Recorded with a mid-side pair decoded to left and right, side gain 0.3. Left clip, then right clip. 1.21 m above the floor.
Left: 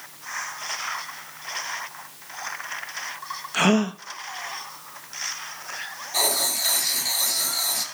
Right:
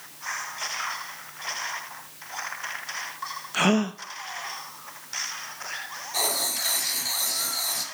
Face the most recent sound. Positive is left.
turn(degrees=20)